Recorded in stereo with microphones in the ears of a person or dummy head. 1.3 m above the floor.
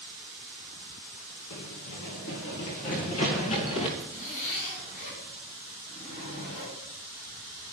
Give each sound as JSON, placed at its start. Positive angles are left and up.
{"t": 1.5, "sound": "running footsteps", "side_deg": 55, "distance_m": 2.5}
{"t": 4.0, "sound": "a zipper", "side_deg": 45, "distance_m": 7.0}